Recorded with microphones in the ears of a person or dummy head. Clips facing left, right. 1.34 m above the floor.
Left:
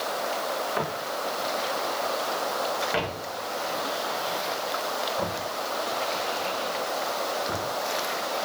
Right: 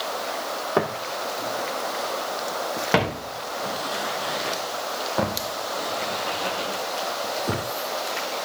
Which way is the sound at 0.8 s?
60° right (ahead or behind).